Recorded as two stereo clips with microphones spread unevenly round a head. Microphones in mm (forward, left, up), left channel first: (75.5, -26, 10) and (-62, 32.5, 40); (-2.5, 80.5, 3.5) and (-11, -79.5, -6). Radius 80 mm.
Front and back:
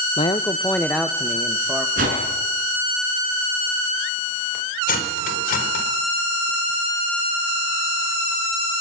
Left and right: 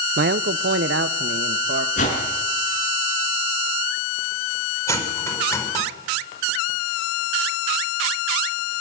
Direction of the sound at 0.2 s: 80° right.